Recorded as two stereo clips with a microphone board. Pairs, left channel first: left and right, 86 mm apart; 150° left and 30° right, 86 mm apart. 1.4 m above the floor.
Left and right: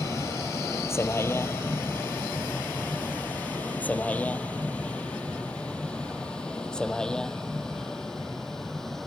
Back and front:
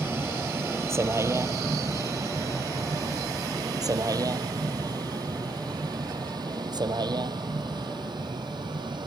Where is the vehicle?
35° left; by 9.1 s 5° left.